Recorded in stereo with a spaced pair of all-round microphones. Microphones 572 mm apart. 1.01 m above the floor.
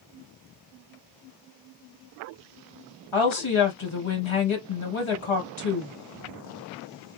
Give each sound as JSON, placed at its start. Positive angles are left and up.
{"t": 3.1, "sound": "a woman speaking", "side_deg": 55, "distance_m": 1.4}